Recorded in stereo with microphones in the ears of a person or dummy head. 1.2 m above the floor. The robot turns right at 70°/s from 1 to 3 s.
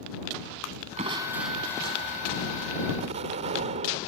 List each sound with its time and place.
1.0 s crushing: 40° right; by 2.7 s 85° left
3.0 s an explosion: 35° right (ahead or behind)